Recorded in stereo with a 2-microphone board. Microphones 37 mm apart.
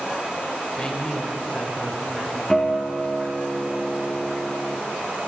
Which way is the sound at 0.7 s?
25° left (ahead or behind).